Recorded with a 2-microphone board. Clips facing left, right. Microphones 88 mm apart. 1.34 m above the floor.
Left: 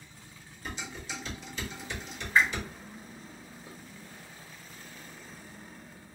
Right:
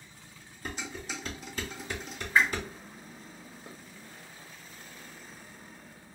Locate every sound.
0.7 s dishes clattering: 45° right (ahead or behind), 2 m
2.4 s a whoosh: 15° right (ahead or behind), 2.5 m
3.7 s dishes clattering: 55° right (ahead or behind), 1.1 m